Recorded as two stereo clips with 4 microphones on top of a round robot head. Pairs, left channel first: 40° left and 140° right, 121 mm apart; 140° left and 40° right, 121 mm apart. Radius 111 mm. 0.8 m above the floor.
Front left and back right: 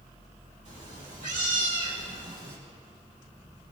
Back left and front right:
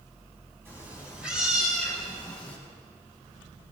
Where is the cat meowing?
110° right, 4.5 m; by 2.6 s 150° right, 4.5 m.